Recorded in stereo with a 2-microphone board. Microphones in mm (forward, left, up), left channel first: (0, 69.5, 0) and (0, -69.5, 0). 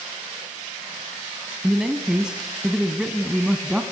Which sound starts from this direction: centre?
A man speaking, at 1.6 s.